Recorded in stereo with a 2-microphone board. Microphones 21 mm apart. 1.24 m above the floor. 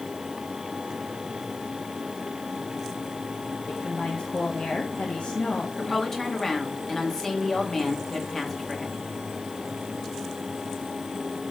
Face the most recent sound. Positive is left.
turn(degrees=25)  # may be behind; listen again after turning